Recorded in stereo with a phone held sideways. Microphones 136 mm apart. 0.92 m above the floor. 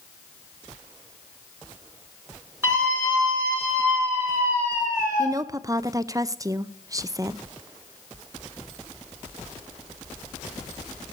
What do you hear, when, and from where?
2.6 s a scream: 20° right (ahead or behind), 8.5 m
5.2 s a woman speaking: 25° right (ahead or behind), 0.5 m